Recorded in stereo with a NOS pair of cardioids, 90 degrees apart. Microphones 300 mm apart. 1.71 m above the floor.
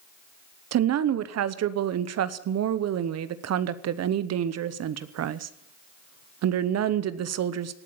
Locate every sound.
0.7 s a woman speaking: 60° right, 1.0 m